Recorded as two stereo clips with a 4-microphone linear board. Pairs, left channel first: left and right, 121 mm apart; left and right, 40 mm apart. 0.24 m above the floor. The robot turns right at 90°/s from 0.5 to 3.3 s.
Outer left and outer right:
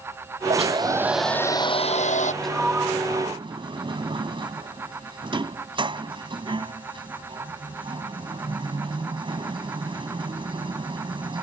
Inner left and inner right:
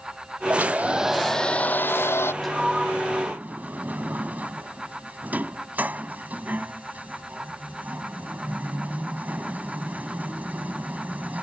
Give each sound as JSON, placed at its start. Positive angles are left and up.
{"t": 0.5, "sound": "a hair dryer", "azimuth_deg": -65}
{"t": 2.4, "sound": "a sliding door", "side_deg": 5}